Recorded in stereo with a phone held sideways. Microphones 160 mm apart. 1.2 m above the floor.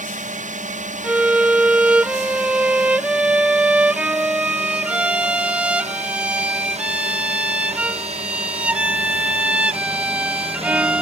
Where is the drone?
55° right (ahead or behind); by 11.0 s 40° right (ahead or behind).